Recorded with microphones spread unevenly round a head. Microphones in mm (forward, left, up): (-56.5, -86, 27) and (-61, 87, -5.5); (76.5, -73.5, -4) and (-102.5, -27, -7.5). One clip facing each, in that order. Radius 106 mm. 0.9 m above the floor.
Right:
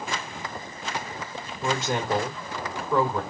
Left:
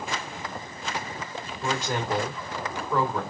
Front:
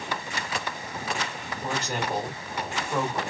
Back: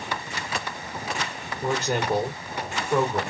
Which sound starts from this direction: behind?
A man speaking, at 1.6 s.